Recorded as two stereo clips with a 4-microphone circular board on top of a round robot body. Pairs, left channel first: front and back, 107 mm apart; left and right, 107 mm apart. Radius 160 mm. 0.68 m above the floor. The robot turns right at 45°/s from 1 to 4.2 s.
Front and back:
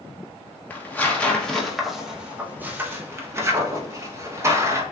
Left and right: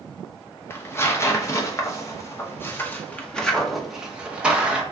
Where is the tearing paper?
55° left, 1.0 m; by 4.8 s 160° right, 1.0 m.